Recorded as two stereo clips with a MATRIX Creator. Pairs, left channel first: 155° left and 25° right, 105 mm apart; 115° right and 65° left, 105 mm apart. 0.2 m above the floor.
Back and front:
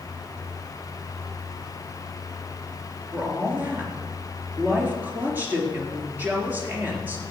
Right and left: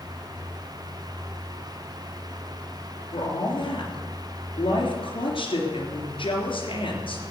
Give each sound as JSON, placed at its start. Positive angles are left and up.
{"t": 3.1, "sound": "a woman speaking", "azimuth_deg": -95, "distance_m": 3.5}